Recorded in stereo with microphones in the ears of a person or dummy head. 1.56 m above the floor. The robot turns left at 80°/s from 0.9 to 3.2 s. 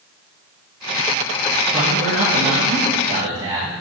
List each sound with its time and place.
1.7 s a man speaking: 35° right, 2 m; by 3.7 s 155° right, 2 m